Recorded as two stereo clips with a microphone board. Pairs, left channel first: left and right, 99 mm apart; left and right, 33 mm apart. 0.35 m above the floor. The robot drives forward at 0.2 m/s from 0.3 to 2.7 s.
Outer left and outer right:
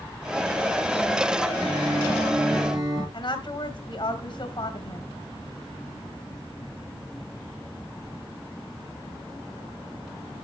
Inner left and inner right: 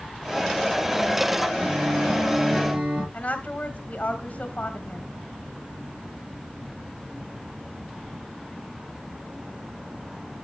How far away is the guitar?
About 5 m.